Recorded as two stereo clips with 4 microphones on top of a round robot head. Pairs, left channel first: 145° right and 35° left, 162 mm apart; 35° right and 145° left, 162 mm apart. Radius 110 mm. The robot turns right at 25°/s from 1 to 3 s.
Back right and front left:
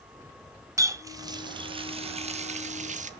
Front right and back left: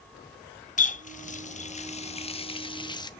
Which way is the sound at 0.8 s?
30° right.